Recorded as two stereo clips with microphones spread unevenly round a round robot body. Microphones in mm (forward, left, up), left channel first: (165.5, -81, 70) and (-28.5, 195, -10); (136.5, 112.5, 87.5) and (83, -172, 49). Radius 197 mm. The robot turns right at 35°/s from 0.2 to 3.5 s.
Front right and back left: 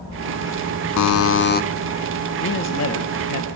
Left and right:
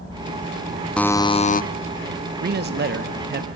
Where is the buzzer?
10° right, 0.7 m; by 1.6 s 15° left, 0.7 m.